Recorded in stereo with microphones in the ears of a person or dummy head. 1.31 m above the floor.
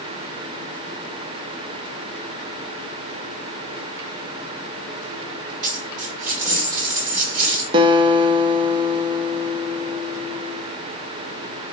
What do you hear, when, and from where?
5.6 s a dropped coin: 45° right (ahead or behind), 1.6 m
7.7 s a guitar: 30° right (ahead or behind), 0.5 m